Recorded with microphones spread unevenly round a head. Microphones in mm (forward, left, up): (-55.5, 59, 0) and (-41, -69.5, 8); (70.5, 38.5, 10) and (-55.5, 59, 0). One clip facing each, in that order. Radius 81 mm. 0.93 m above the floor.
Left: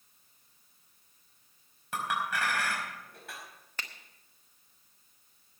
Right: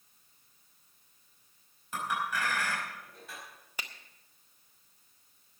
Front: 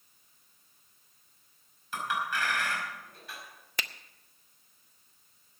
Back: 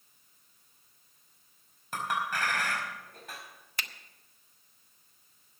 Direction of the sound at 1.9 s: 125° left.